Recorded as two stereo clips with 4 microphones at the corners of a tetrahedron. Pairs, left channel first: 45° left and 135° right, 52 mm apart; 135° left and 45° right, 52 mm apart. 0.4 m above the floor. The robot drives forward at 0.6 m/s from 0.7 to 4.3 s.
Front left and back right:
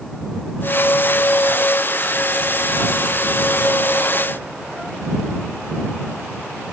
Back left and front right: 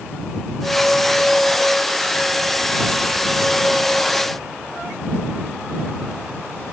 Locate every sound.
Only background noise.